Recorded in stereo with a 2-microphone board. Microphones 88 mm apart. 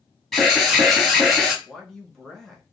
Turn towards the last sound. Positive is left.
turn(degrees=5)  # may be behind; listen again after turning